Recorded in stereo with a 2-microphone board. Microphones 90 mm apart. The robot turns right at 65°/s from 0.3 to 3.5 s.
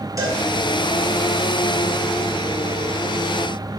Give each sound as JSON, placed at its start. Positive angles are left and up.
{"t": 0.2, "sound": "a cowbell", "side_deg": -40, "distance_m": 2.5}